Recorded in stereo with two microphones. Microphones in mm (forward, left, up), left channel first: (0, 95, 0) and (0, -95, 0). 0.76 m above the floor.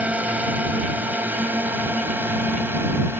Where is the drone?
10° right (ahead or behind).